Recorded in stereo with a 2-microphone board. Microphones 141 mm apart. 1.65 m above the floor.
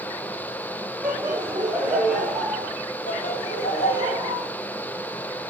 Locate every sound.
1.0 s laughter: 20° right (ahead or behind), 4 m; by 2.7 s 5° left (ahead or behind), 4.5 m
3.1 s laughter: 80° left, 3.5 m